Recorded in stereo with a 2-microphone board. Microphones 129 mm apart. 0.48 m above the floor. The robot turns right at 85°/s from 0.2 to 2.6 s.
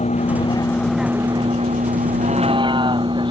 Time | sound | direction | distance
0.0 | a vehicle | 115° left | ?